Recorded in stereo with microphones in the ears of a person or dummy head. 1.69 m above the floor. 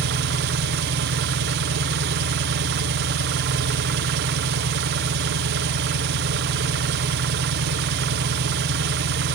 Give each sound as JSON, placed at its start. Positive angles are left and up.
{"t": 0.0, "sound": "an engine running", "side_deg": -60, "distance_m": 1.1}